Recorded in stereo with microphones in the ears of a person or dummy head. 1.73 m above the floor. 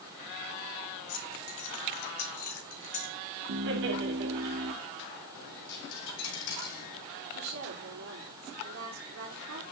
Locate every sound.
1.1 s keys jangling: 65° left (ahead or behind), 3.5 m; by 3.1 s 45° left (ahead or behind), 2.5 m
3.5 s laughter: 70° right (ahead or behind), 3.5 m
5.3 s a dropped coin: 65° left (ahead or behind), 2.5 m
7.3 s a woman speaking: 70° right (ahead or behind), 5.5 m